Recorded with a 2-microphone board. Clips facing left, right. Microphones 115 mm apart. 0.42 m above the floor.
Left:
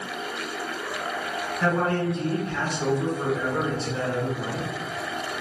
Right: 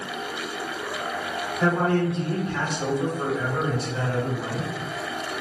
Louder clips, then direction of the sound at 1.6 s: Right 2 dB; 20° right (ahead or behind).